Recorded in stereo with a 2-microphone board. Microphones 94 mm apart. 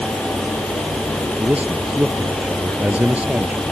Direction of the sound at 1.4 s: 15° right (ahead or behind).